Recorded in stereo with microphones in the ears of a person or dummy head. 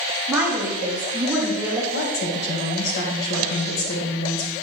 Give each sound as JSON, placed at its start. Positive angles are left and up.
{"t": 0.3, "sound": "a woman speaking", "side_deg": -10, "distance_m": 1.1}
{"t": 1.9, "sound": "a woman speaking", "side_deg": 70, "distance_m": 1.4}